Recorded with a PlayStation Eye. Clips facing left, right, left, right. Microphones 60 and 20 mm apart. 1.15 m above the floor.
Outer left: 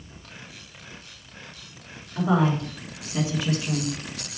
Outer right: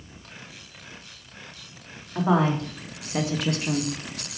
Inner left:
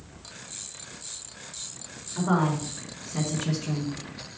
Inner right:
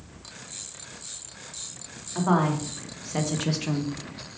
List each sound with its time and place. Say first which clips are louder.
2.1 s a woman speaking: even, inner right 2 dB; 60° right (ahead or behind), 2.5 m; by 3.9 s 65° right (ahead or behind), 0.8 m